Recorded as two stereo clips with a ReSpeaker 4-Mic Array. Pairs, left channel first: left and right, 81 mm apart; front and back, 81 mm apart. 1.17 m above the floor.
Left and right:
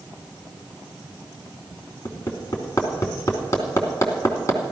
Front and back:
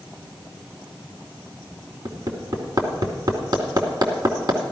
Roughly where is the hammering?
Behind left.